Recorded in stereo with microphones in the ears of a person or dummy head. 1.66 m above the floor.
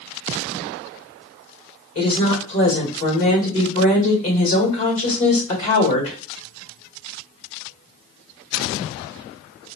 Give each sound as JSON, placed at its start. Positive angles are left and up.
{"t": 1.9, "sound": "a woman speaking", "side_deg": 40, "distance_m": 1.8}